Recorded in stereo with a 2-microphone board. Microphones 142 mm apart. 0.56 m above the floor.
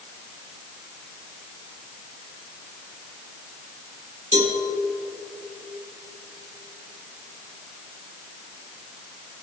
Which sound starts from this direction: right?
A cowbell, at 4.3 s.